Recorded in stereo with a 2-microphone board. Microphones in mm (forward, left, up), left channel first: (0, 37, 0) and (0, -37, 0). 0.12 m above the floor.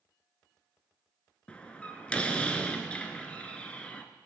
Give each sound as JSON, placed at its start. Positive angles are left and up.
{"t": 1.5, "sound": "a door slam", "side_deg": 15, "distance_m": 0.9}